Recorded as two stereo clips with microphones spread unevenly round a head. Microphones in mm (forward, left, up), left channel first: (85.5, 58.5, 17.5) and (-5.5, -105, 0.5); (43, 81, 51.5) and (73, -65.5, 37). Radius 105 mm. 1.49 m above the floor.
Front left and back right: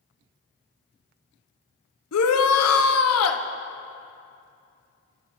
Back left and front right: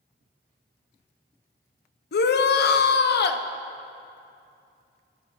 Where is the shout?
85° left, 0.7 m.